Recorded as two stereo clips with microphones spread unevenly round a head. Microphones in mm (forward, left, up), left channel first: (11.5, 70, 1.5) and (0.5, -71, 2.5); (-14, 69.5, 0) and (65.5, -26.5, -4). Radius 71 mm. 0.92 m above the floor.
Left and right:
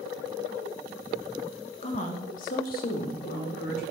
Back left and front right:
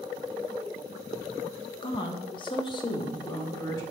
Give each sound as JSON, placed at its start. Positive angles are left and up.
{"t": 1.8, "sound": "a woman speaking", "azimuth_deg": 100, "distance_m": 1.1}